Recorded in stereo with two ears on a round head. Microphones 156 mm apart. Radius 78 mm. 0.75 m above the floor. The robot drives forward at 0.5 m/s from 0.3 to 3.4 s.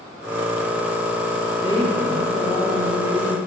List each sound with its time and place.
1.6 s a woman speaking: 30° left (ahead or behind), 2 m; by 3.4 s 45° left (ahead or behind), 1.7 m